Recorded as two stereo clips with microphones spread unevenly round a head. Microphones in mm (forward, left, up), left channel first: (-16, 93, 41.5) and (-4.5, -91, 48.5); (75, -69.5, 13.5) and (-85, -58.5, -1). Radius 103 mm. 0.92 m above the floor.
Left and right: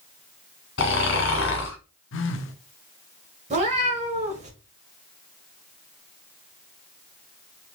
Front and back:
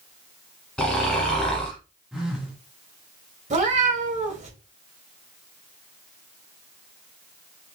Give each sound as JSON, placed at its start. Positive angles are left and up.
{"t": 0.8, "sound": "snoring", "azimuth_deg": 75, "distance_m": 1.2}
{"t": 2.1, "sound": "a phone buzzing", "azimuth_deg": 90, "distance_m": 0.7}
{"t": 3.5, "sound": "a cat meowing", "azimuth_deg": -140, "distance_m": 1.5}